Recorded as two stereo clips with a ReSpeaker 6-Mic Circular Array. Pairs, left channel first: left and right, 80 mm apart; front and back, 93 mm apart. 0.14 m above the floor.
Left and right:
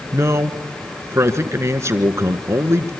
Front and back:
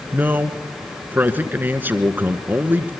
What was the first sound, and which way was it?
A man speaking, 120° right.